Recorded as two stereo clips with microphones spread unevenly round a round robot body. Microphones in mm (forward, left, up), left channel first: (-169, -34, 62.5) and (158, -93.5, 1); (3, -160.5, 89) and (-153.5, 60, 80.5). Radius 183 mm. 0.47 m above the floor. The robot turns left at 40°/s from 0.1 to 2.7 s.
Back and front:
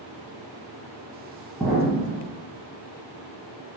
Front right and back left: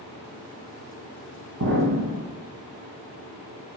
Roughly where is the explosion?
Left.